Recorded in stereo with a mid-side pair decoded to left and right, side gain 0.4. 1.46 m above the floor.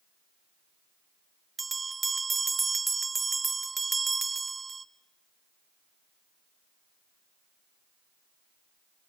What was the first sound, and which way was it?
A bell, 30° right.